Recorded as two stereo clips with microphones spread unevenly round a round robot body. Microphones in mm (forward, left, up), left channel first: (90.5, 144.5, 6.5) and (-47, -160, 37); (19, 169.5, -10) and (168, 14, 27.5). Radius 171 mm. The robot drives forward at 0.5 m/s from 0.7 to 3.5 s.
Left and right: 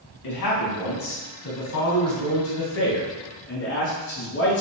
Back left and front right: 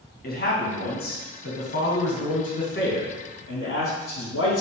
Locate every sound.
0.2 s a man speaking: 95° left, 3 m; by 4.6 s 120° left, 3 m